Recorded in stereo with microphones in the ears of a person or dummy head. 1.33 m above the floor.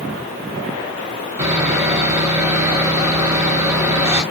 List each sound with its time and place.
1.4 s sawing: 15° right (ahead or behind), 2.5 m